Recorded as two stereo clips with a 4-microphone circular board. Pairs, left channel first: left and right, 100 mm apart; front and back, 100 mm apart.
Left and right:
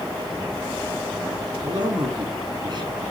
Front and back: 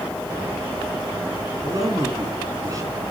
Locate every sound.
1.6 s a man speaking: 125° right, 3.5 m